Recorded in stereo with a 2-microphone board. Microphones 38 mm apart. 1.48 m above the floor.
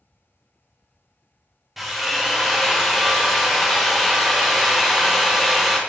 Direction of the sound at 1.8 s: 5° right (ahead or behind).